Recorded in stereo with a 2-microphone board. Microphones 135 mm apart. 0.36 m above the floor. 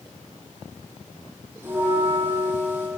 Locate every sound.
1.6 s a bell: 20° right (ahead or behind), 7.5 m